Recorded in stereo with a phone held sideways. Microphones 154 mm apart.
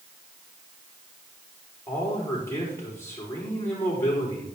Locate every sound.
1.9 s a man speaking: 15° left (ahead or behind), 5 m